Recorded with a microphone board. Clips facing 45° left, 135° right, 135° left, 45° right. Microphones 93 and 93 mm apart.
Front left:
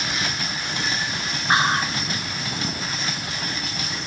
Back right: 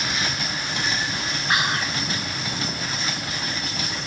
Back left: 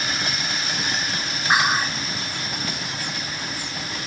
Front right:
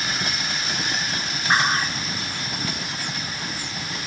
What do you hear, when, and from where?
1.5 s whispering: 60° left